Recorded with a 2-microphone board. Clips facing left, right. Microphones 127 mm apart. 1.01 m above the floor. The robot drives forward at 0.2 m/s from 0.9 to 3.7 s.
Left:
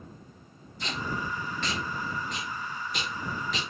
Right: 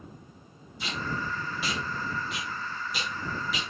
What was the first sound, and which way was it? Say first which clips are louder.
Tape being pulled: even; 5° right (ahead or behind).